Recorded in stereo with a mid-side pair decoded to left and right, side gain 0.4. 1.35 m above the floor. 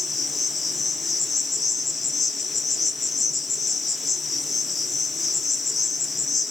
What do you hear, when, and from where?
0.0 s an insect: 45° left, 0.7 m